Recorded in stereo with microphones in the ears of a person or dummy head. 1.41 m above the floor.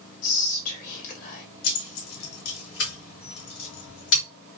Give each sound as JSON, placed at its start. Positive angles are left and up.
{"t": 0.2, "sound": "whispering", "side_deg": 45, "distance_m": 1.0}
{"t": 1.6, "sound": "keys jangling", "side_deg": 65, "distance_m": 1.5}